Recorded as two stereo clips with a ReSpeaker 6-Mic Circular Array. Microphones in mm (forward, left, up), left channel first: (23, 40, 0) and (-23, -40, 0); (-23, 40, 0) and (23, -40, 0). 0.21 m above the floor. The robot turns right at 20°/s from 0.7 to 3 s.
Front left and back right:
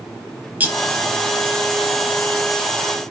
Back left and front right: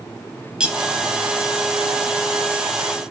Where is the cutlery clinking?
120° right, 0.6 m.